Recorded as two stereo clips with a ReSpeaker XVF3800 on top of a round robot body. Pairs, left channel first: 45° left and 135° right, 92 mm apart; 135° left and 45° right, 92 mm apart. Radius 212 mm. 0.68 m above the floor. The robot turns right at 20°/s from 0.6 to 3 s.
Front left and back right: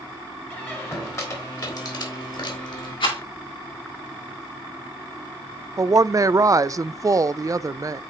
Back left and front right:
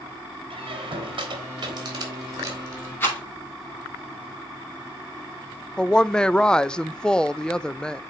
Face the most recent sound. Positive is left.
turn(degrees=-150)